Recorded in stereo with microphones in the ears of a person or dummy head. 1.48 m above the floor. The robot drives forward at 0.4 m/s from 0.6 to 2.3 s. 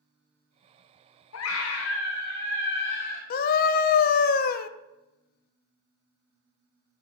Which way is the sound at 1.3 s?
75° left (ahead or behind).